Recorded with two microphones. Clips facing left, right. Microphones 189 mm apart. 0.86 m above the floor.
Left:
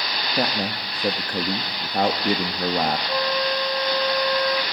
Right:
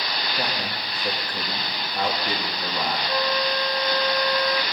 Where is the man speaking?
55° left (ahead or behind), 1.4 m.